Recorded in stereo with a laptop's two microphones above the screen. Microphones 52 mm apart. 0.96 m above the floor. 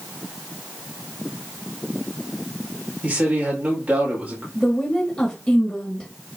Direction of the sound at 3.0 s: 30° right (ahead or behind).